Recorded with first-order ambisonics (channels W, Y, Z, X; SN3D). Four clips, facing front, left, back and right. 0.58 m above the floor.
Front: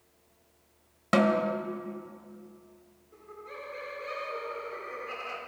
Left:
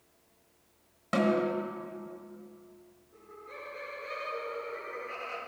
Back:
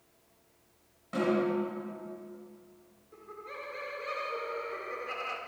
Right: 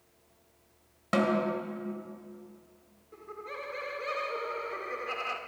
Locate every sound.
1.1 s a snare drum: 10° right, 1.1 m
3.1 s laughter: 100° right, 1.4 m